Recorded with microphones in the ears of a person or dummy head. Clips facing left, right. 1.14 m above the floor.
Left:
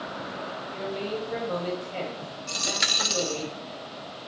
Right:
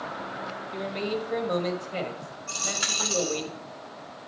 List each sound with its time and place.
0.7 s a man speaking: 30° right (ahead or behind), 1.3 m
2.5 s a dropped coin: 35° left (ahead or behind), 0.6 m